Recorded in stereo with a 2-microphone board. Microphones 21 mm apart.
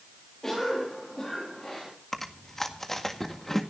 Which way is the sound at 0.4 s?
20° left (ahead or behind).